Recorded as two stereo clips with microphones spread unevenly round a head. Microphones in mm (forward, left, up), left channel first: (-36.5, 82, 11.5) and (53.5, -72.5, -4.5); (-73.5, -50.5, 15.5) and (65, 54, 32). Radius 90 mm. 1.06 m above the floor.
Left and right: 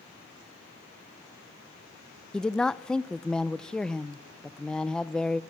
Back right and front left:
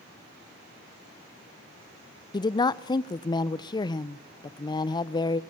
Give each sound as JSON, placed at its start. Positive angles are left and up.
{"t": 2.3, "sound": "a woman speaking", "azimuth_deg": -150, "distance_m": 0.7}